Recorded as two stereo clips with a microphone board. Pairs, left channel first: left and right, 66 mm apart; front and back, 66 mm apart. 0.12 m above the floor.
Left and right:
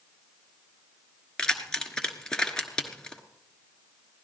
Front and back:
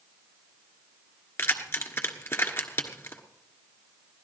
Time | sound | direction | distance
1.4 | keys jangling | 15° left | 1.4 m